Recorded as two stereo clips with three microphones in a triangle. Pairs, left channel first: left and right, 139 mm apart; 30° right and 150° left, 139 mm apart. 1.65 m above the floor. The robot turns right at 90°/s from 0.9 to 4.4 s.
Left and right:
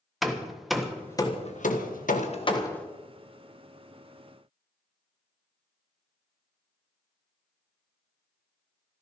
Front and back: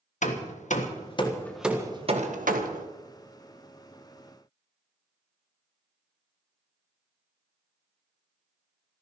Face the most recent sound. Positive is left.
turn(degrees=-45)